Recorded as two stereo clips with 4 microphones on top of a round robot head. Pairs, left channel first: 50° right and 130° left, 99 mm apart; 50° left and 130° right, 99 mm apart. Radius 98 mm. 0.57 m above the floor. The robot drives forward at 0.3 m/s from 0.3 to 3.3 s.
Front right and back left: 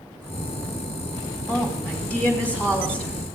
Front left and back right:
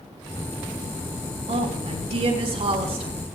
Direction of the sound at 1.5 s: 120° right.